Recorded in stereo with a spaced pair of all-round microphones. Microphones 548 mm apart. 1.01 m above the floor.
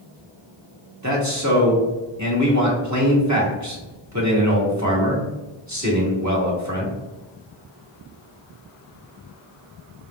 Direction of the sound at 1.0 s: 30° right (ahead or behind).